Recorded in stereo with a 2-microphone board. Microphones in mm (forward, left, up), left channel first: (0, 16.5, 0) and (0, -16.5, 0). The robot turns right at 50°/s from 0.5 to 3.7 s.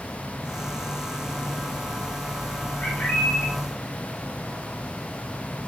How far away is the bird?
About 8 m.